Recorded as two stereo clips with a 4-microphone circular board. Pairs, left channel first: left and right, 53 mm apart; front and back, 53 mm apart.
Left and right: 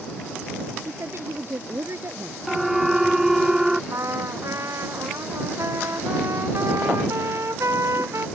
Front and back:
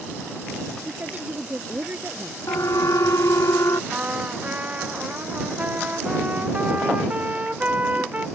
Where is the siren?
5° right; by 3.8 s 10° right.